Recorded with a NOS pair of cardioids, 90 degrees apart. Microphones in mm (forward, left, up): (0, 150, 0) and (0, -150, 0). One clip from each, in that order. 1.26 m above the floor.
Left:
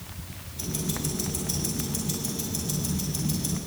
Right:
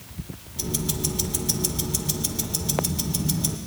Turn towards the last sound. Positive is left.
turn(degrees=-50)